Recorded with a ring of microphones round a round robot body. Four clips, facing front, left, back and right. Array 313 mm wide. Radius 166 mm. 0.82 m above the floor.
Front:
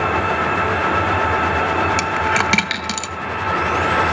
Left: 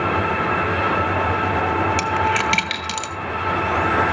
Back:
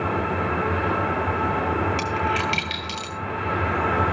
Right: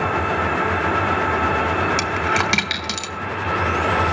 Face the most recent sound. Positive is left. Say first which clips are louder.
# left 1 dB, front 5 dB
turn(degrees=-15)